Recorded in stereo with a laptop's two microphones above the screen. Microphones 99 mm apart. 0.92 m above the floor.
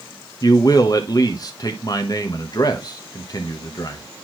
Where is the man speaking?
40° left (ahead or behind), 1.0 m.